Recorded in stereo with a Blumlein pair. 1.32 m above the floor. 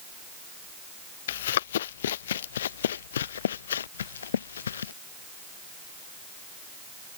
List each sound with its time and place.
1.3 s running footsteps: 60° left; by 4.9 s 65° left